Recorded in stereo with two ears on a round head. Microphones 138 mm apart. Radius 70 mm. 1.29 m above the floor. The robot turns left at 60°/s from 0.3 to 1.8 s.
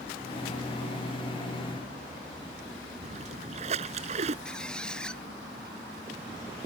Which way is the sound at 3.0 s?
40° right (ahead or behind).